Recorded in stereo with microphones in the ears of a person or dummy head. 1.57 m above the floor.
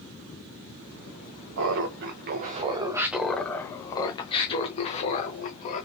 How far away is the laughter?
About 0.8 m.